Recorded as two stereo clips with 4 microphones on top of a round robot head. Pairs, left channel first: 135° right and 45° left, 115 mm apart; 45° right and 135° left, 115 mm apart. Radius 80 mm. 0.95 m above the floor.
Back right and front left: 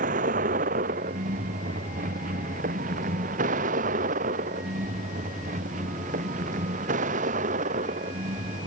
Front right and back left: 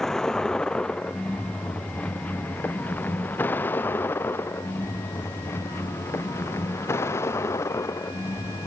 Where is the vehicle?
45° left; by 8.7 s 25° left.